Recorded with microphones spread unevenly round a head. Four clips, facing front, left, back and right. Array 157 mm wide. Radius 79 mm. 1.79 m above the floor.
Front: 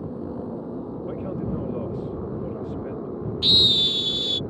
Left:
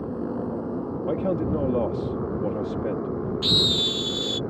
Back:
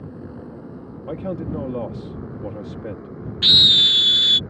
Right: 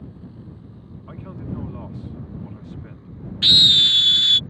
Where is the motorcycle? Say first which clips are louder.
Left 13 dB, front 4 dB; 70° left.